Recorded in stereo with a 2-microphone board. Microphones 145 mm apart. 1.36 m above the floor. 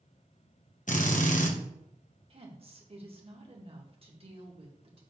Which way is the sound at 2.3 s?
40° right (ahead or behind).